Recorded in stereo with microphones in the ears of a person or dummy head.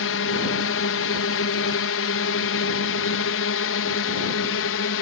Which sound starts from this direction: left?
A drone, at 0.0 s.